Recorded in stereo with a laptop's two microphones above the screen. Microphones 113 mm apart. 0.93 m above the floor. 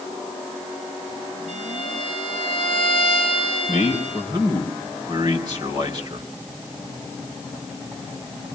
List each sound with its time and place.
1.5 s a violin: 80° right, 6.5 m
3.7 s a man speaking: 40° right (ahead or behind), 3.5 m